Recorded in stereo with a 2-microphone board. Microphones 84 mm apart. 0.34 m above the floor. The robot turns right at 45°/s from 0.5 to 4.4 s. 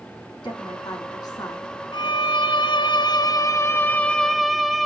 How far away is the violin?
About 0.8 m.